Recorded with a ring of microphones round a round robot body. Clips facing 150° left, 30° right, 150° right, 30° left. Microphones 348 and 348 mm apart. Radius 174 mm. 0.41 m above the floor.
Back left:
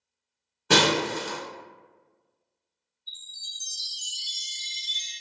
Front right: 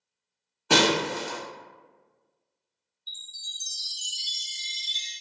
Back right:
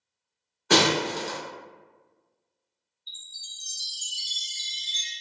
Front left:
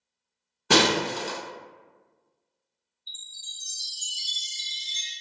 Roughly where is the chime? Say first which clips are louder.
Front right 1 dB, front left 1 dB; right.